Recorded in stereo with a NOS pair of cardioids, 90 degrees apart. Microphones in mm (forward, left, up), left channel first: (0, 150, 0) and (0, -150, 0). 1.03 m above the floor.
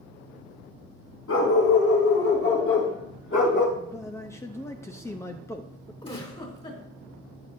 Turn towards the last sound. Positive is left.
turn(degrees=20)